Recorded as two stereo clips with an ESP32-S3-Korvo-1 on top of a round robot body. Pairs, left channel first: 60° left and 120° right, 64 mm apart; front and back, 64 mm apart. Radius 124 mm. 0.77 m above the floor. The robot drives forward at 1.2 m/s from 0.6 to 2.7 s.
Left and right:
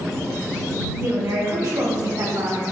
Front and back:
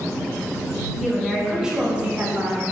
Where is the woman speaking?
80° right, 2 m; by 2.6 s 130° right, 3 m.